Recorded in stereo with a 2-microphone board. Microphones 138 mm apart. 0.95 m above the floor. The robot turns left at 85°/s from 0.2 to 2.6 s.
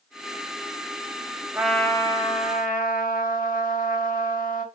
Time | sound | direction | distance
1.5 | a trumpet | 170° right | 1.2 m